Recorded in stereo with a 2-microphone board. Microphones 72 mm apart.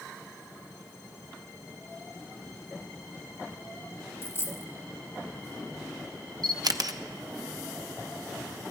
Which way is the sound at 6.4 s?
65° right (ahead or behind).